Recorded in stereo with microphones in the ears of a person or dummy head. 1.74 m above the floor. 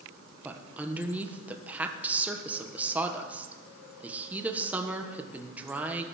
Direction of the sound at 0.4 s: 10° right (ahead or behind).